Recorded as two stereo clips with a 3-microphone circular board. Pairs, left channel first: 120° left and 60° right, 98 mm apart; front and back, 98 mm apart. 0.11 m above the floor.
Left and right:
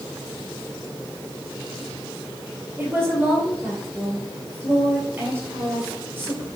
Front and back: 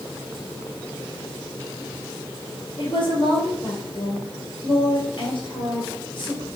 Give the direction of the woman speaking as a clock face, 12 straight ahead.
12 o'clock.